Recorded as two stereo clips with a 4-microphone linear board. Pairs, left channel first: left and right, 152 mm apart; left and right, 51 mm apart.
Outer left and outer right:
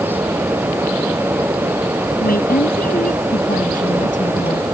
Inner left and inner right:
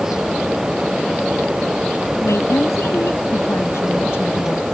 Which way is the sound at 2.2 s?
80° left.